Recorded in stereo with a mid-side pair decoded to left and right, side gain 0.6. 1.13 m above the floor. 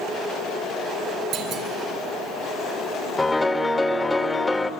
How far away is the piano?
About 1.7 m.